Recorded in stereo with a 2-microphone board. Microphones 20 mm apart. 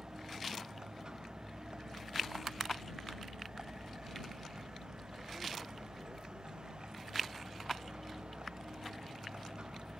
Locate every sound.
0.0 s a vehicle: 40° right (ahead or behind); by 10.0 s 55° right (ahead or behind)